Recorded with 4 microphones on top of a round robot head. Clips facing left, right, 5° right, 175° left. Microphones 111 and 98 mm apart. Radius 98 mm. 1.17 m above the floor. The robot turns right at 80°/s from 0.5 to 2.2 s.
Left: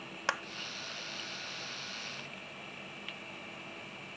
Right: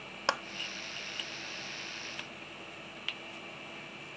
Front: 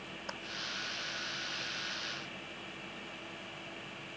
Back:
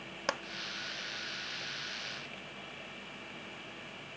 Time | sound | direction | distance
0.3 | a clap | 155° right | ?